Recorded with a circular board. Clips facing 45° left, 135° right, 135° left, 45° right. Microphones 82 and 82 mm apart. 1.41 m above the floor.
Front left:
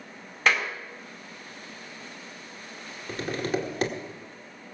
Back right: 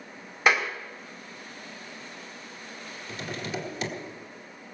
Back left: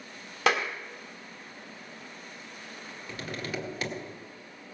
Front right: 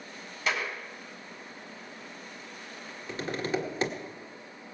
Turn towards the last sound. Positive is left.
turn(degrees=15)